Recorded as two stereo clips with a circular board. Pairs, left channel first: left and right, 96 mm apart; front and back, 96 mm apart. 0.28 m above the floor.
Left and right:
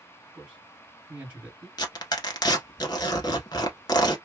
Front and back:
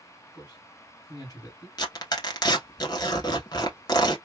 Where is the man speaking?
20° right, 2 m.